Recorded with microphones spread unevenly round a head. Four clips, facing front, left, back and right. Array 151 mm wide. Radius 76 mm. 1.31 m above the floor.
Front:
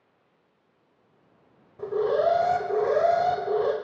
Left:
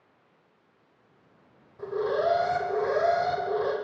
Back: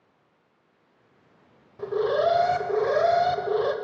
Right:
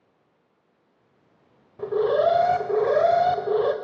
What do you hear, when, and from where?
1.8 s an alarm: 95° right, 0.7 m